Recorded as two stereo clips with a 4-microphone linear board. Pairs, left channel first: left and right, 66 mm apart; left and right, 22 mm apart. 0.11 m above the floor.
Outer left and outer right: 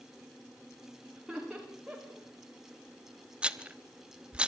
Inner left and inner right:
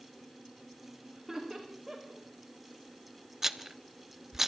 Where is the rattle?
15° right (ahead or behind), 1.1 m.